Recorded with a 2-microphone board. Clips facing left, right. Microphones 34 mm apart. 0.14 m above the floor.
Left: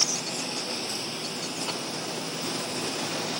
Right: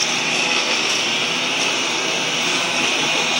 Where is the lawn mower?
70° right (ahead or behind).